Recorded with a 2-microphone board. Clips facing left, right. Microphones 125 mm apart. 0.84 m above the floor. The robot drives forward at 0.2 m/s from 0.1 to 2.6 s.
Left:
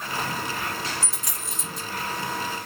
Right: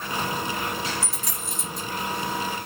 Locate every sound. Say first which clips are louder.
1.0 s a dropped coin: right 2 dB; centre (ahead or behind), 1.5 m